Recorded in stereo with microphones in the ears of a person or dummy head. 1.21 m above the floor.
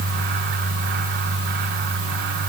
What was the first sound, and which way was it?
Only background noise.